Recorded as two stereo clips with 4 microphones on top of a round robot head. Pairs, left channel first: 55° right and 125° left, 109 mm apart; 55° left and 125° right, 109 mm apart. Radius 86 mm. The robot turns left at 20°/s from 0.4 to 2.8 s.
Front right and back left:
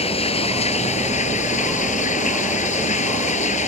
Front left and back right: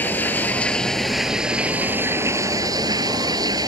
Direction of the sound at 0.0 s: 20° right.